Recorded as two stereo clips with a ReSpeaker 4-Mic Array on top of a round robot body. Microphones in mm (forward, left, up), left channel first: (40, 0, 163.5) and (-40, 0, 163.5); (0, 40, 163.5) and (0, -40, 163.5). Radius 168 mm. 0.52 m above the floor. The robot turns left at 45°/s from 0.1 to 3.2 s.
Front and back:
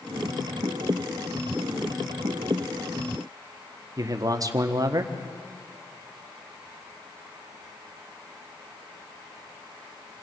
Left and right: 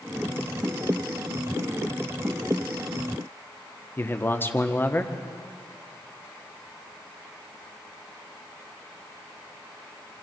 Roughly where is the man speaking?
Behind left.